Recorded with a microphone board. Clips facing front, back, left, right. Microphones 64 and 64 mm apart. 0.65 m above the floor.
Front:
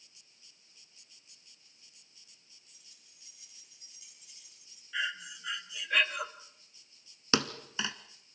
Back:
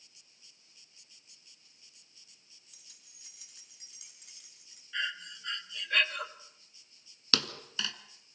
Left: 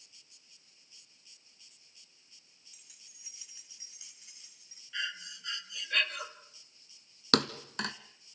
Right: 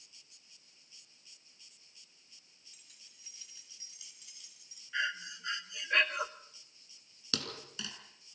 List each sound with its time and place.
2.7 s keys jangling: 175° left, 4 m; by 4.8 s 145° left, 5.5 m
4.9 s breathing: 75° right, 1.2 m
7.3 s a thud: 65° left, 1.4 m